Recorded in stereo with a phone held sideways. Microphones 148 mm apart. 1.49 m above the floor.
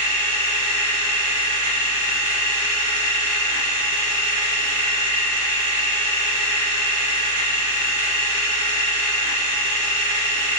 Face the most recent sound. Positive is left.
turn(degrees=-15)  # may be behind; listen again after turning